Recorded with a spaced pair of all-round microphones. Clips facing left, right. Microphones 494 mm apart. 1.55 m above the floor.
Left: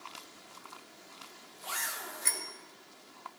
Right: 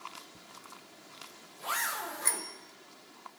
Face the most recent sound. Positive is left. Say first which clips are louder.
# right 3 dB
turn(degrees=50)  # may be behind; listen again after turning